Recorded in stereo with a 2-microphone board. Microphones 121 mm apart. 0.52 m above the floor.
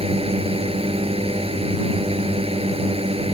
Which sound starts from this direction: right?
A drone, at 0.0 s.